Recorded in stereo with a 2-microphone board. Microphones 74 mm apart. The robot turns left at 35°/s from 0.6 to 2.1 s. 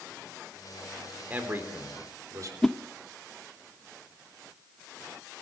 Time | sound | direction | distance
1.3 | a man speaking | 20° right (ahead or behind) | 3.5 m
2.6 | a whoosh | 10° left (ahead or behind) | 0.6 m